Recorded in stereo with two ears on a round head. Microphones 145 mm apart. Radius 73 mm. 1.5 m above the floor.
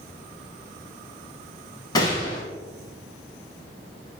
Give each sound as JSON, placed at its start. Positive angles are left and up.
{"t": 1.9, "sound": "a gunshot", "side_deg": 25, "distance_m": 1.8}